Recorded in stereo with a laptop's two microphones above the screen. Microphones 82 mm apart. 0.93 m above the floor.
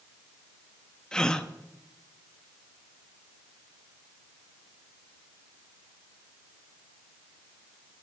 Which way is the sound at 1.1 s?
10° left (ahead or behind).